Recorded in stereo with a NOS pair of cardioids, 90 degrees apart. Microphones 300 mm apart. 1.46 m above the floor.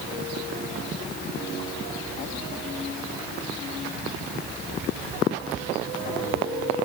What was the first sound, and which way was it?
Only background noise.